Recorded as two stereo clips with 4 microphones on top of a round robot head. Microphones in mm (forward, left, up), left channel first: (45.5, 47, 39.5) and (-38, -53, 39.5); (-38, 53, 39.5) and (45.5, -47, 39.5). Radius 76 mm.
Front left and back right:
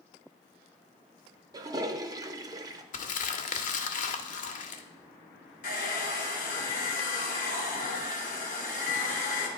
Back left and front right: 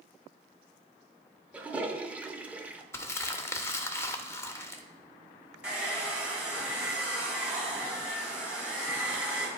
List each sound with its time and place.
1.5 s a toilet flushing: 120° right, 0.7 m
2.9 s crumpling: 60° left, 0.7 m
5.6 s a hair dryer: 30° left, 1.8 m